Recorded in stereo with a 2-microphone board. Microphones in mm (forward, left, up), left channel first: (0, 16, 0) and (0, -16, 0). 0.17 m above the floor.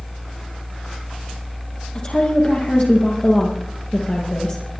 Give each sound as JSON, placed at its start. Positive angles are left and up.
{"t": 1.9, "sound": "a woman speaking", "side_deg": 35, "distance_m": 4.5}